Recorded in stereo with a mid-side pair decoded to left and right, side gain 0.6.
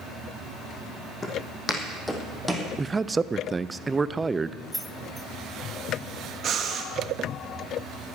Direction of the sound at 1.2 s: 30° left.